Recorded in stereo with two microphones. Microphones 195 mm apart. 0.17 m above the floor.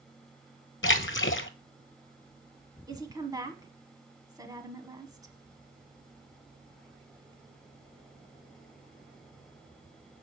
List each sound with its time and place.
0.8 s a splash: 80° left, 0.6 m
2.9 s a woman speaking: 20° right (ahead or behind), 1.2 m